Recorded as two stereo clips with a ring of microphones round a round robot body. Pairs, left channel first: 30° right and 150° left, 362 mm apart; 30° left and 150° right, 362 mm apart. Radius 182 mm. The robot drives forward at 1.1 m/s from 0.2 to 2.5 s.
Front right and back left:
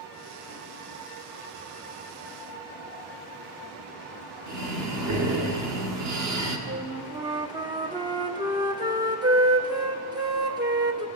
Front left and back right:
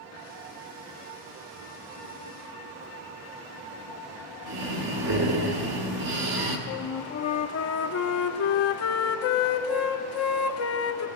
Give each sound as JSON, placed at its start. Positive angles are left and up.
{"t": 4.5, "sound": "breathing", "azimuth_deg": -170, "distance_m": 1.3}
{"t": 6.7, "sound": "a flute", "azimuth_deg": 75, "distance_m": 0.5}